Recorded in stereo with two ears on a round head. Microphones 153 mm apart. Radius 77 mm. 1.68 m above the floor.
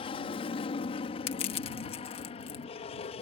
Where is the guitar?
I don't hear a guitar.